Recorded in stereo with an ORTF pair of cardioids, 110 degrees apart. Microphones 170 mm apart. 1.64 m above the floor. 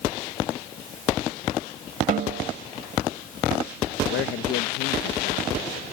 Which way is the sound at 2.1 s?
55° right.